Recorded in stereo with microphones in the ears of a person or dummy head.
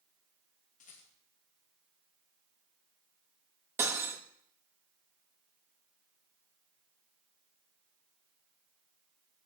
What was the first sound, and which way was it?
A rattle, 45° left (ahead or behind).